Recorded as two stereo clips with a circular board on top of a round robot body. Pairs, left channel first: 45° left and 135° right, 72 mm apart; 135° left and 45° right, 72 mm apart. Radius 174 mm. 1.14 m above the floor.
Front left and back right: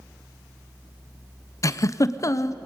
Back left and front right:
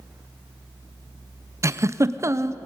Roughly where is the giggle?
Ahead.